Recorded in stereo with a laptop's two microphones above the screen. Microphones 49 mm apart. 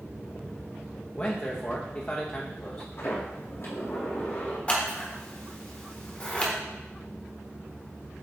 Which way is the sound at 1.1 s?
35° left (ahead or behind).